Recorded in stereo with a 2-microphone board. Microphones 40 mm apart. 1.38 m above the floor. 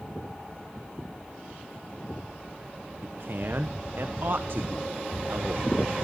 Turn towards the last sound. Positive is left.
turn(degrees=-60)  # may be behind; listen again after turning